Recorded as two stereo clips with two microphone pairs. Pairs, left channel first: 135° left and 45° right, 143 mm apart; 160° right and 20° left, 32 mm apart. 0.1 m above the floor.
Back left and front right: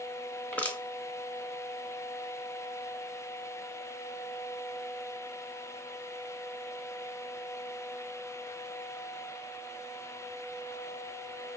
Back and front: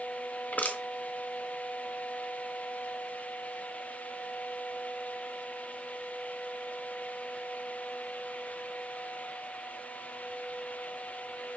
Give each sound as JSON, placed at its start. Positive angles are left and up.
{"t": 0.5, "sound": "crushing", "azimuth_deg": -145, "distance_m": 0.8}